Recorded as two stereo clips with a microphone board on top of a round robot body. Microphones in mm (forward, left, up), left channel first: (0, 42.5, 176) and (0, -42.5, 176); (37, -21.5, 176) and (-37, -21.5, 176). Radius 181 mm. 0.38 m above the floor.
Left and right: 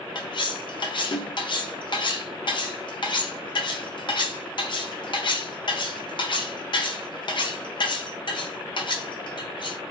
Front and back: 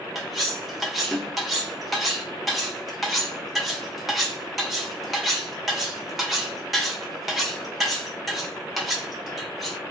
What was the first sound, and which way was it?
Cutlery clinking, 90° left.